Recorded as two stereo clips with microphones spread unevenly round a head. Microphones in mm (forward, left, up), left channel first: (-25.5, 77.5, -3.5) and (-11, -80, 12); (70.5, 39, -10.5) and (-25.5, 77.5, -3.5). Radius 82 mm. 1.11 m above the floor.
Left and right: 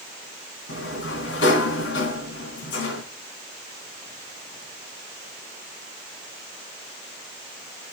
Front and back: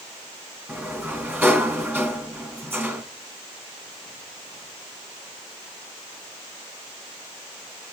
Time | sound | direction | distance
0.7 | a sliding door | 90° left | 2 m